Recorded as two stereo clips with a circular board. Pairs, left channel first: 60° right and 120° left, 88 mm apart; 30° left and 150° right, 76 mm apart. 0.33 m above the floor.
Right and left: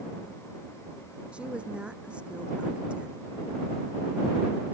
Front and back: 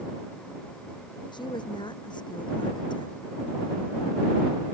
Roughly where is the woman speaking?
Ahead left.